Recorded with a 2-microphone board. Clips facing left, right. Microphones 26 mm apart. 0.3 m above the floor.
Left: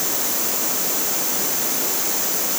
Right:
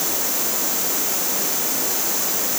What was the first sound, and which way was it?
Only background noise.